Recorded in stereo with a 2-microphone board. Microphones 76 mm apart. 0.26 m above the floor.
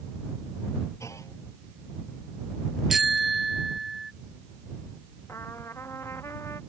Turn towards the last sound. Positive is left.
turn(degrees=35)  # may be behind; listen again after turning